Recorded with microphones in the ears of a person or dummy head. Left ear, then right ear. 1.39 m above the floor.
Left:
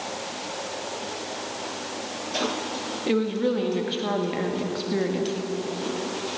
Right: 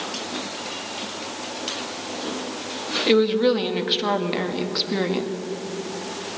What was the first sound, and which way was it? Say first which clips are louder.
A woman speaking: right 7 dB; 30° right (ahead or behind).